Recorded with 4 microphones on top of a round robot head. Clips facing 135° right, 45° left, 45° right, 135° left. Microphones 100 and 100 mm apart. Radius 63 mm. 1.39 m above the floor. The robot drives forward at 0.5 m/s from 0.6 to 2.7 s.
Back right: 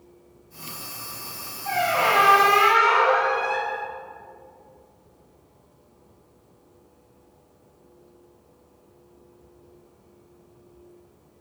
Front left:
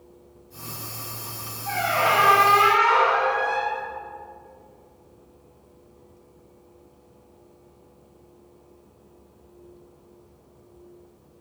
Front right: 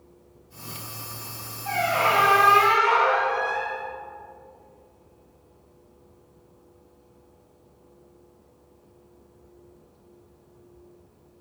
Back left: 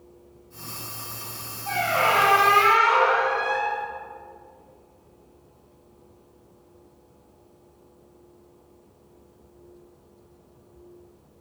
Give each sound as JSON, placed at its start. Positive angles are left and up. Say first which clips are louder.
{"t": 1.6, "sound": "a squeak", "louder": "back right 1 dB, even", "azimuth_deg": -85, "distance_m": 1.4}